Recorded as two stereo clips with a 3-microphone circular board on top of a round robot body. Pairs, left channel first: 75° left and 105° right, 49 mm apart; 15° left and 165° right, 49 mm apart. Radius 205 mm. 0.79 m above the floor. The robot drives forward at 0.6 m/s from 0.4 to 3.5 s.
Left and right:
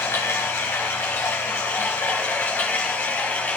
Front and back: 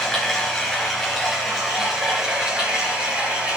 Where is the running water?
90° left, 3 m; by 3.6 s 125° left, 3.5 m.